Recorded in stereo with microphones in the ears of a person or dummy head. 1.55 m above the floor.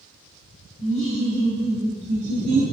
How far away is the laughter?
About 0.9 m.